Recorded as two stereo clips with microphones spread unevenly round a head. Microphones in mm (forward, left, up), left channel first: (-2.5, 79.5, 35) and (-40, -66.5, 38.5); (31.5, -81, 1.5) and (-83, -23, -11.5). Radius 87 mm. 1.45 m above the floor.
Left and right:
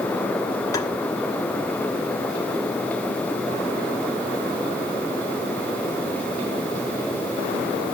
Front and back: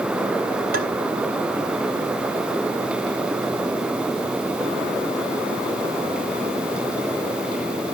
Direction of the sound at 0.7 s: 145° left.